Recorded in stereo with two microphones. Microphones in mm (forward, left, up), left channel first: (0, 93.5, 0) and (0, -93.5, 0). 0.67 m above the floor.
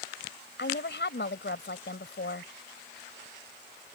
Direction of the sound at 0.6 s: 75° left (ahead or behind).